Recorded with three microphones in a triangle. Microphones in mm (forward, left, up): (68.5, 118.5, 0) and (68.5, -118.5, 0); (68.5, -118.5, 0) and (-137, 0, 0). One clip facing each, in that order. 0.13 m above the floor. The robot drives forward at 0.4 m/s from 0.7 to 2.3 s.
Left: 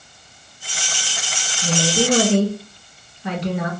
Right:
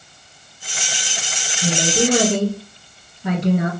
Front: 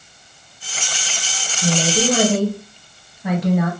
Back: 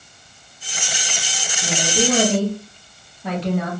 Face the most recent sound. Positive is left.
turn(degrees=-110)